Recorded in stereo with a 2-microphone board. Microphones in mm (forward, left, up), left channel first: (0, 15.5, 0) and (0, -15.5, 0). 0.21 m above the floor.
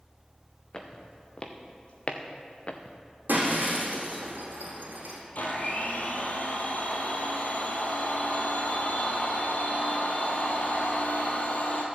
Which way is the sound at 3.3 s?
75° right (ahead or behind).